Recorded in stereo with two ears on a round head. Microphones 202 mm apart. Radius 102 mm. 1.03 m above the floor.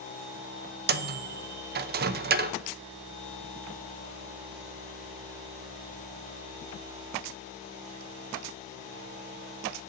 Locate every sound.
0.9 s a microwave: 40° right (ahead or behind), 0.5 m